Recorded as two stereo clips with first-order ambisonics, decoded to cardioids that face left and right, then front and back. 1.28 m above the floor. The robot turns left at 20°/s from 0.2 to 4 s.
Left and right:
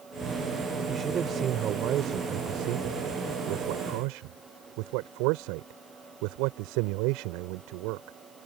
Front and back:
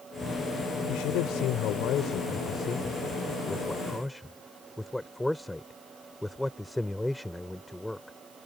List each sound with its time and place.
0.9 s a man speaking: 20° right; by 8.2 s 85° right